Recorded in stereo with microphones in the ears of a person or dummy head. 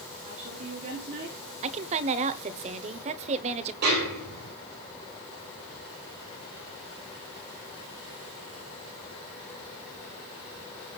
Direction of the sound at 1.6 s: 40° right (ahead or behind).